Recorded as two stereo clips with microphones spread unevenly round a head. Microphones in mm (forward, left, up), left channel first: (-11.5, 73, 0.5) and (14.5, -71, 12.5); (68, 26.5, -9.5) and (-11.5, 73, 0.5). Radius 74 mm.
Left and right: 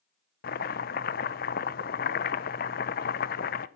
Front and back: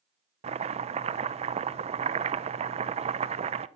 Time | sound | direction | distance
0.4 | chopping | 135° left | 0.8 m